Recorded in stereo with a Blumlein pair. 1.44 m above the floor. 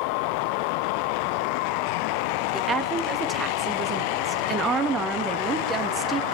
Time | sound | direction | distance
2.5 | a woman speaking | 15° right | 2.5 m